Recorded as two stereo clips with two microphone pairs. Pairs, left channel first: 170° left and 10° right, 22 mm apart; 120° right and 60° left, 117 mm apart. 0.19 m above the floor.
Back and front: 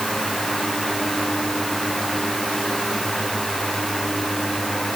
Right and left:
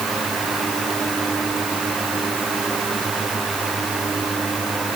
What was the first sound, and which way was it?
Only background noise.